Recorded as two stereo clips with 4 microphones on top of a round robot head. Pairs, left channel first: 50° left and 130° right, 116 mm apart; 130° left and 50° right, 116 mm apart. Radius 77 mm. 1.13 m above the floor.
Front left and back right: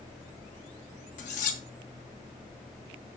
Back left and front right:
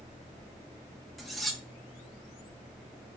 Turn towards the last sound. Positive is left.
turn(degrees=40)